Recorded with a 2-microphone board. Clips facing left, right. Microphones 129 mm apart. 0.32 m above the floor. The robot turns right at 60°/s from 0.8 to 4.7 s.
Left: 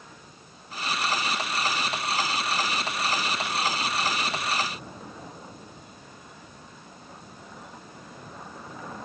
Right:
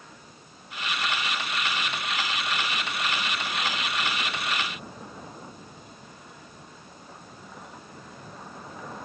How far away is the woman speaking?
No woman speaking in this recording.